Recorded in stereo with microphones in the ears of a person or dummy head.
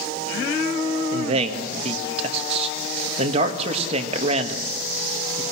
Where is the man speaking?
35° right (ahead or behind), 2.0 m.